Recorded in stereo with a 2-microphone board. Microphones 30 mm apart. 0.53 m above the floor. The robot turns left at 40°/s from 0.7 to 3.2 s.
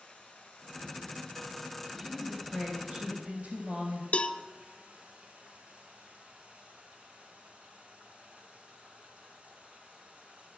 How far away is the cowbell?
About 0.7 m.